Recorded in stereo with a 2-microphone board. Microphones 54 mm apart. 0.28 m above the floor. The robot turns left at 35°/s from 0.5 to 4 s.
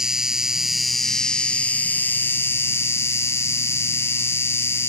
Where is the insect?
170° right; by 4.9 s 70° left.